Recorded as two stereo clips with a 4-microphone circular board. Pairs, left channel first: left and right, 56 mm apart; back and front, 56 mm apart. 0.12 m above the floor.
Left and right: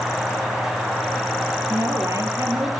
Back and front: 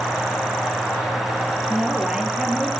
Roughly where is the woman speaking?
Right.